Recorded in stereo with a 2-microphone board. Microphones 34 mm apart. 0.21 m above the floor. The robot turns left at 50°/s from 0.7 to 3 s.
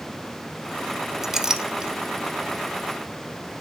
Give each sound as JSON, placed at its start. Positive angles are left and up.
{"t": 1.2, "sound": "a clink", "side_deg": -15, "distance_m": 0.6}